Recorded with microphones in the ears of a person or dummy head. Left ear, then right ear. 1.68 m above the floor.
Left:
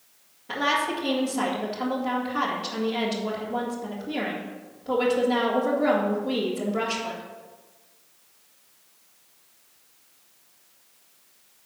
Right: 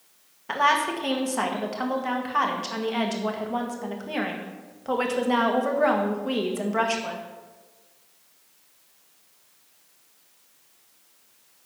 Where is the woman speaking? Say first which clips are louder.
Right 3 dB; 45° right (ahead or behind), 1.8 m.